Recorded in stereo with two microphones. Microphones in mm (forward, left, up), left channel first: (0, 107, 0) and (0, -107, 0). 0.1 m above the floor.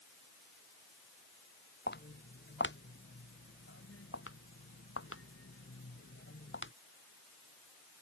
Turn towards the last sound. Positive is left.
turn(degrees=65)  # may be behind; listen again after turning